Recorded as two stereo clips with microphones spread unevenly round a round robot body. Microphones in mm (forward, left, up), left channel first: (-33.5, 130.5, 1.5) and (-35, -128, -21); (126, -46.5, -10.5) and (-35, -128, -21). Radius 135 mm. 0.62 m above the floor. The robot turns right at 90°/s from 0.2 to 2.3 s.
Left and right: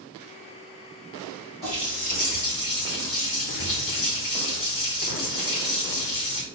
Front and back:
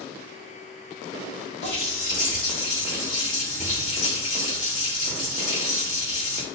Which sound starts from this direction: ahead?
A running tap, at 1.6 s.